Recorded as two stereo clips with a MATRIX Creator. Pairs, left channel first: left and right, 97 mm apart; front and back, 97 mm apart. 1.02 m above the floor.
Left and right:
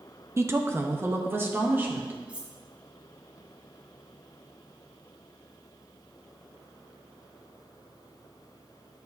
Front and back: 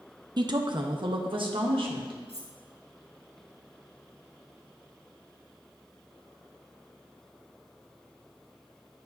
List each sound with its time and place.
0.4 s a woman speaking: 145° right, 0.7 m; by 2.1 s 155° right, 1.6 m
2.3 s cutlery clinking: 15° right, 1.2 m